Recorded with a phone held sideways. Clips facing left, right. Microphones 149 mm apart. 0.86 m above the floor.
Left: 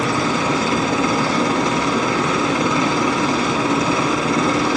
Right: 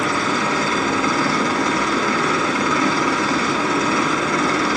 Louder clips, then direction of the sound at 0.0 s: Left 2 dB; 20° left (ahead or behind).